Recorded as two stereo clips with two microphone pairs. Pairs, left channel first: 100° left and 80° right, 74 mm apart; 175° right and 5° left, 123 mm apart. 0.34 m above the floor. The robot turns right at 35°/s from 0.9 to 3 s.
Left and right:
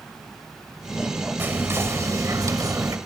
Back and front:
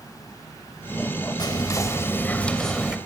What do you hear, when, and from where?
1.4 s whispering: 130° right, 1.3 m; by 3.0 s 75° right, 1.3 m